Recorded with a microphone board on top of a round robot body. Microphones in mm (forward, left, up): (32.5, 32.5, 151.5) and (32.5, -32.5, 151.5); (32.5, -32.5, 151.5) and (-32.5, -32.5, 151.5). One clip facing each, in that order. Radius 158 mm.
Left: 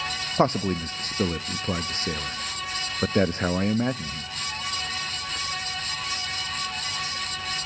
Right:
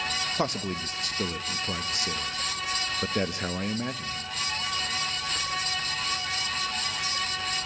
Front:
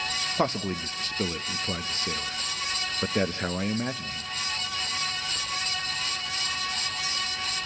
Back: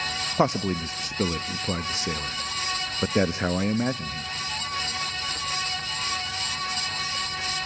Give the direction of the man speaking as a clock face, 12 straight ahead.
8 o'clock.